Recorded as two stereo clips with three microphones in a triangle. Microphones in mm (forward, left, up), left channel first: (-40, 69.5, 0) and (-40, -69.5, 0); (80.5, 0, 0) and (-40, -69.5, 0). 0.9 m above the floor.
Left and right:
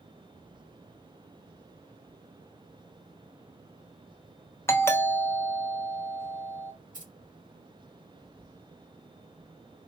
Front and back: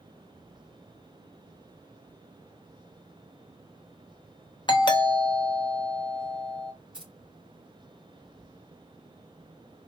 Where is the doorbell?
35° left, 0.7 m.